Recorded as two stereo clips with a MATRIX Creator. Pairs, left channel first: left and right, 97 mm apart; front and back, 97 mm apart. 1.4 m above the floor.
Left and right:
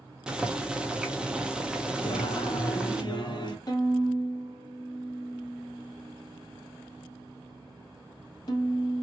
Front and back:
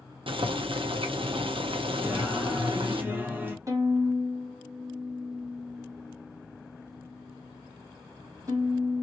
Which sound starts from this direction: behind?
Boiling, at 0.3 s.